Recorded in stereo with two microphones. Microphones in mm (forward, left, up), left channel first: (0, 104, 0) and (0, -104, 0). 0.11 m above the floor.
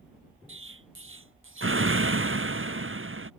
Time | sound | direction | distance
0.5 | an explosion | 80° right | ?